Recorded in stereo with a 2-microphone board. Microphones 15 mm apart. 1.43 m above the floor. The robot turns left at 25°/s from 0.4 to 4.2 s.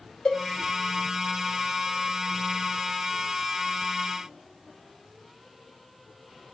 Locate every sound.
0.2 s a cowbell: 85° left, 5 m